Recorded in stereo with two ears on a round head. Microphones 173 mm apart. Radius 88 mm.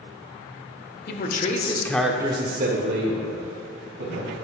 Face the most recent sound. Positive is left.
turn(degrees=-75)  # may be behind; listen again after turning